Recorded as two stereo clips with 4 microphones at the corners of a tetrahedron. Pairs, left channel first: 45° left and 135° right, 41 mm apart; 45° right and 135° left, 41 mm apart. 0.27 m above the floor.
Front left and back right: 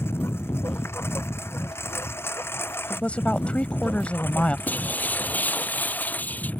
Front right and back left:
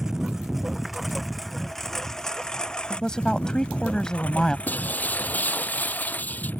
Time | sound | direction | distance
0.0 | a lawn mower | 55° left | ?
2.9 | a woman speaking | 15° left | ?
4.7 | breaking glass | straight ahead | ?